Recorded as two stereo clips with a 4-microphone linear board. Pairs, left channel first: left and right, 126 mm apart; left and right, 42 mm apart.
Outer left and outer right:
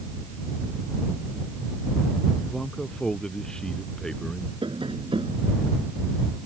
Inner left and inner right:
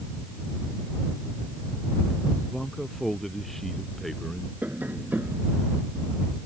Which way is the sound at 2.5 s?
5° left (ahead or behind).